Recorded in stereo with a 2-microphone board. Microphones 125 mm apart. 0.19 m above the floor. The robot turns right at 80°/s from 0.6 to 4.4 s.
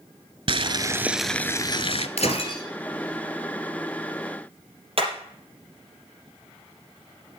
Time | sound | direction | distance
0.5 | boiling | 50° right | 0.8 m
2.2 | breaking glass | 105° left | 2.5 m
5.0 | hammering | 50° right (ahead or behind) | 5 m